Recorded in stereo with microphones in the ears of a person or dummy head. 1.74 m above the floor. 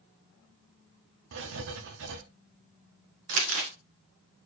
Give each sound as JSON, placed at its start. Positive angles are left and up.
{"t": 1.3, "sound": "writing", "side_deg": -70, "distance_m": 0.9}
{"t": 3.3, "sound": "crumpling", "side_deg": -70, "distance_m": 1.7}